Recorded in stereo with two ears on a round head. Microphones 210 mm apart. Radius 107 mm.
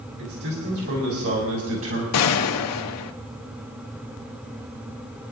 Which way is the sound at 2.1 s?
75° left (ahead or behind).